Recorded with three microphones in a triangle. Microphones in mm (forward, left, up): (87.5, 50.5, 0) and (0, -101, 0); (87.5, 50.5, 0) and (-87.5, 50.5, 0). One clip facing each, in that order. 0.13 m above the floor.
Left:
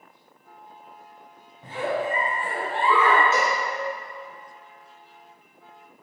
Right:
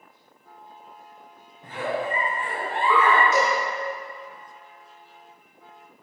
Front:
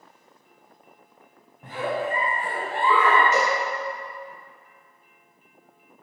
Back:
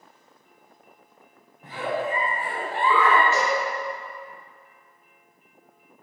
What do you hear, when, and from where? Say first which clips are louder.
1.6 s a giggle: left 1 dB, front 1 dB; straight ahead, 1.3 m
3.3 s a cowbell: right 2 dB, front 1 dB; 10° left, 1.6 m